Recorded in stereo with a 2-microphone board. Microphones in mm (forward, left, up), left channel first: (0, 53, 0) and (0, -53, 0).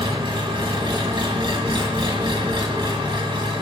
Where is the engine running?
50° right (ahead or behind), 1.8 m.